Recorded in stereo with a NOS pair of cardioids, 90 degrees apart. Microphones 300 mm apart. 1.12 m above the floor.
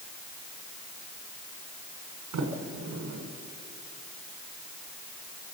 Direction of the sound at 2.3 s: 65° right.